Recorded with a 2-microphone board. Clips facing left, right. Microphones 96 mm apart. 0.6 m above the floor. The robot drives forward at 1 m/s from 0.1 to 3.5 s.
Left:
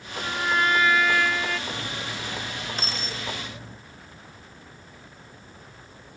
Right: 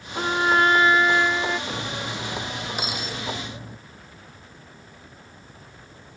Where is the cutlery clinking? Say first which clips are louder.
Right 3 dB; 15° right (ahead or behind).